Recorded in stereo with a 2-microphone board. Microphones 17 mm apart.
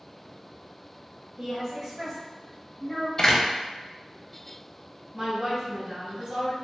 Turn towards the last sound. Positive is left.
turn(degrees=-20)  # may be behind; listen again after turning